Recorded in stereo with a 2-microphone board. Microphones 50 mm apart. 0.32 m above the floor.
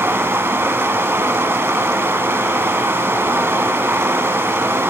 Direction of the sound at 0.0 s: 55° right (ahead or behind).